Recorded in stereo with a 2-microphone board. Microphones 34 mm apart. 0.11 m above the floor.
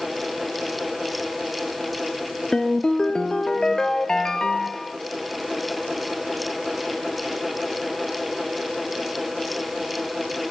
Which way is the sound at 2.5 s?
20° left (ahead or behind).